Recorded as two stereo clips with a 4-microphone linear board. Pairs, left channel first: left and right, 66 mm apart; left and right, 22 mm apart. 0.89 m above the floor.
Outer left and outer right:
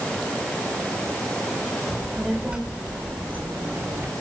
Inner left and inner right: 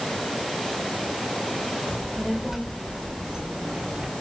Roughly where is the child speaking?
Centre.